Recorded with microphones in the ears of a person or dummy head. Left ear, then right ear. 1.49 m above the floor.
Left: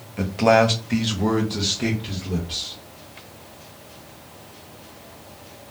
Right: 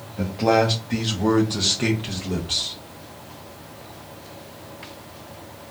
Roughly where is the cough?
No cough in this recording.